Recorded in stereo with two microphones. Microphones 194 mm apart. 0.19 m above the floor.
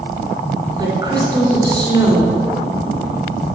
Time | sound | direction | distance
0.8 | a woman speaking | 20° right (ahead or behind) | 2 m